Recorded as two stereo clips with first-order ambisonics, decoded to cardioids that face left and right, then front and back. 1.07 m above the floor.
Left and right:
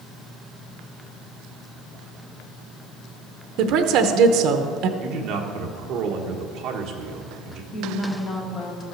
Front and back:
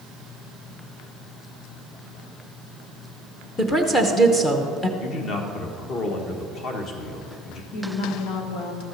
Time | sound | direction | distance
3.6 | a woman speaking | 75° right | 0.8 m
5.0 | a man speaking | 50° right | 1.4 m
7.7 | a woman speaking | 30° left | 1.9 m